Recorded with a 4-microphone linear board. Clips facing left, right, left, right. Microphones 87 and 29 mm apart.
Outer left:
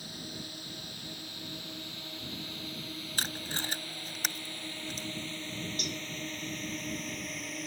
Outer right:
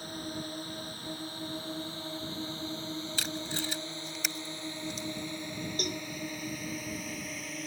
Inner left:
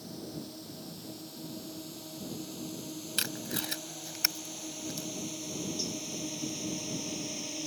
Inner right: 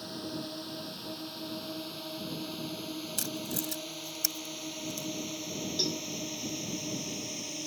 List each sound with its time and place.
0.0 s a drone: 40° right (ahead or behind); by 7.7 s centre (ahead or behind)
3.2 s tape being pulled: 45° left (ahead or behind)
5.8 s a cowbell: 50° right (ahead or behind)